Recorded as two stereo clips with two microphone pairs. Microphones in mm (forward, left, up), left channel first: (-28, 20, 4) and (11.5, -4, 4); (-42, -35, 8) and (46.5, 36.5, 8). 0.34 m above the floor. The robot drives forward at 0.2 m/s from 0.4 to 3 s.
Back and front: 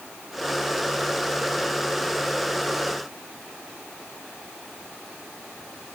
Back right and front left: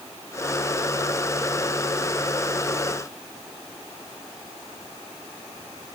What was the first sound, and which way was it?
Only background noise.